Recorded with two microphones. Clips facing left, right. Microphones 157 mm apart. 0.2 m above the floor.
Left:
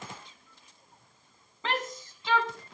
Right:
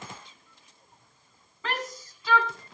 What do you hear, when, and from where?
1.6 s a shout: 25° left (ahead or behind), 1.9 m